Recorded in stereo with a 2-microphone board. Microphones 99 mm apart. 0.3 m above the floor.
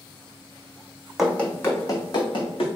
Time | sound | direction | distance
1.2 | running footsteps | 5° right (ahead or behind) | 0.7 m